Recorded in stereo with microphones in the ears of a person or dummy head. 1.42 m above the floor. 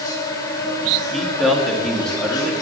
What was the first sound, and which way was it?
An insect, 25° left (ahead or behind).